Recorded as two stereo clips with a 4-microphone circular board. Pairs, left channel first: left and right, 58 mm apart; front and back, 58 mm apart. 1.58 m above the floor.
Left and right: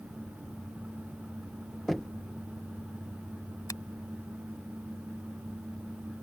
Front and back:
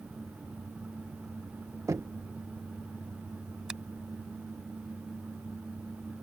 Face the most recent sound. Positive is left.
turn(degrees=105)